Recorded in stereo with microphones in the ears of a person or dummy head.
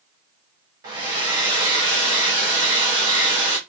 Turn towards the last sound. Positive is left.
turn(degrees=-15)  # may be behind; listen again after turning